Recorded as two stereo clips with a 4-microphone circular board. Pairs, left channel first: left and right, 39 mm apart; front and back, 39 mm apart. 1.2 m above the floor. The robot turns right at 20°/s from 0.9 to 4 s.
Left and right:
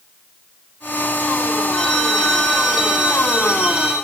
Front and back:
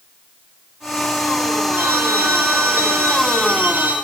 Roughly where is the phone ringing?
Behind.